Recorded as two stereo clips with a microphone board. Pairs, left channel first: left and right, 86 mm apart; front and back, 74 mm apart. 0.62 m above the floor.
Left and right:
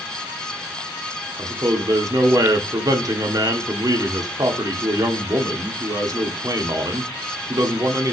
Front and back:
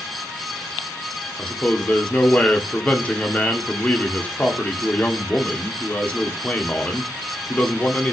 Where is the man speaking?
65° right, 1.4 m.